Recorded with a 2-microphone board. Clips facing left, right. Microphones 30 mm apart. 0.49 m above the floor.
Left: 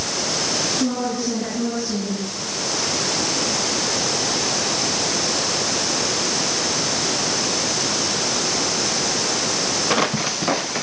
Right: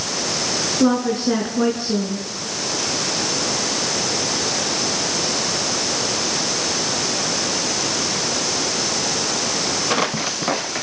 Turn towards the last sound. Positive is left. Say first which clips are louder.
# right 5 dB
turn(degrees=-75)  # may be behind; listen again after turning